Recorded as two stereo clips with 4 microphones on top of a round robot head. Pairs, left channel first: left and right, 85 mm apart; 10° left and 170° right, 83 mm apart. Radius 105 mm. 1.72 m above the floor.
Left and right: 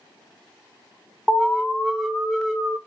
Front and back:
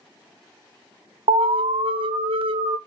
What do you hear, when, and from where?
1.3 s an alarm: straight behind, 0.7 m